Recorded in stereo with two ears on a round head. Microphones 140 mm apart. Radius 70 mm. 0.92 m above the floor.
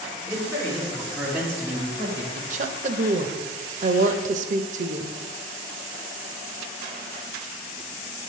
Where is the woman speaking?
50° right (ahead or behind), 0.6 m.